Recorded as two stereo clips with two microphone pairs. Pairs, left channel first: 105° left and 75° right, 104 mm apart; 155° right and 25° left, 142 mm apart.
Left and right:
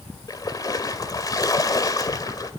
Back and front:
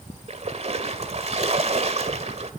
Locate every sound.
0.3 s a splash: 55° left, 2.5 m